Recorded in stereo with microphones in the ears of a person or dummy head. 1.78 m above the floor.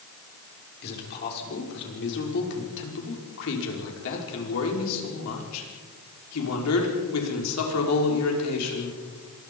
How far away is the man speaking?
About 6 m.